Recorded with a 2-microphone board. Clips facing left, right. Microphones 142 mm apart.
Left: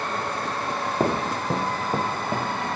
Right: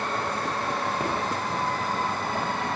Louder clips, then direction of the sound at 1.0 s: Left 4 dB; 40° left (ahead or behind).